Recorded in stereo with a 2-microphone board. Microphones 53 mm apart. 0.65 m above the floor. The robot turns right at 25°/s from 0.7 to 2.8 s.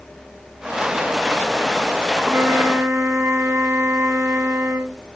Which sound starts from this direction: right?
A flute, at 2.2 s.